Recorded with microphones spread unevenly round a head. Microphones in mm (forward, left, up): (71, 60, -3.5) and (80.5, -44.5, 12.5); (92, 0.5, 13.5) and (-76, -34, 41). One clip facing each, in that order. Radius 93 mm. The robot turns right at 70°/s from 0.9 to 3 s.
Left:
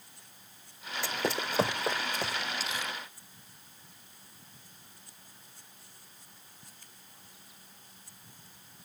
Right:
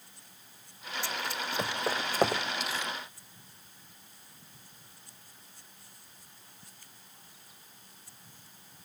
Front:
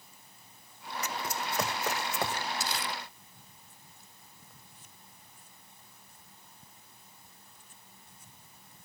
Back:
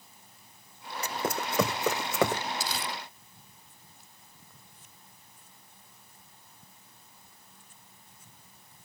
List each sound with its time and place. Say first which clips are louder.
1.0 s running footsteps: left 4 dB, back 5 dB; 130° left; by 2.4 s 135° right
2.6 s crumpling: right 1 dB, back 1 dB; 165° left; by 2.9 s 170° right